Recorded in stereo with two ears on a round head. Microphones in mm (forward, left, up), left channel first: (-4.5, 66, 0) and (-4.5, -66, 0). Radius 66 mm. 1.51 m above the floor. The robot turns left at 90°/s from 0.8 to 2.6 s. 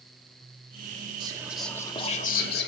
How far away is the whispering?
About 1.2 m.